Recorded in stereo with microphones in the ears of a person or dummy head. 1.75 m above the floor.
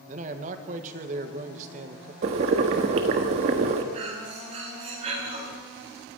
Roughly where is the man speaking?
Right.